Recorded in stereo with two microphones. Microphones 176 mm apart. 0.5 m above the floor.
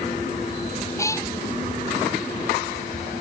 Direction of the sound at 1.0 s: 15° left (ahead or behind).